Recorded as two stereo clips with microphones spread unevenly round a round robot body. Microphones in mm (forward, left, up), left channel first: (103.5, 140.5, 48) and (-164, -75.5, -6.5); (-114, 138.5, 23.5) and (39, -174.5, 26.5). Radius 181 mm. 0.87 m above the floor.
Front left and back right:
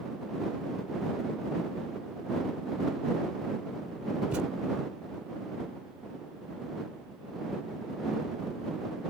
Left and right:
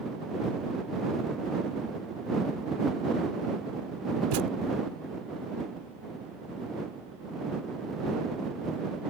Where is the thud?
50° right.